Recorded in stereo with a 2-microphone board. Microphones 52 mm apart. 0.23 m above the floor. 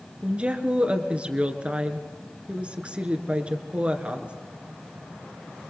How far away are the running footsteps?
No running footsteps in this recording.